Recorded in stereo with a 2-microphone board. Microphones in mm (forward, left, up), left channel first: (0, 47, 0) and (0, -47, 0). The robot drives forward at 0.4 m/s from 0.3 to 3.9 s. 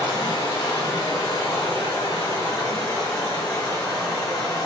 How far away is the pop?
No pop in this recording.